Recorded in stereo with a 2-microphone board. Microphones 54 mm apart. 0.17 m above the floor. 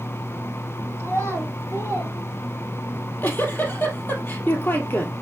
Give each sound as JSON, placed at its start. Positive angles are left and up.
{"t": 1.0, "sound": "a child speaking", "side_deg": 60, "distance_m": 4.0}
{"t": 2.9, "sound": "a giggle", "side_deg": 45, "distance_m": 1.6}